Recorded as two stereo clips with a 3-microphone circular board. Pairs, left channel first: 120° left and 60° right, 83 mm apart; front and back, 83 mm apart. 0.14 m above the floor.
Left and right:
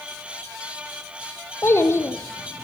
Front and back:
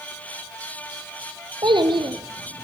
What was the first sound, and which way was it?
A child speaking, 175° left.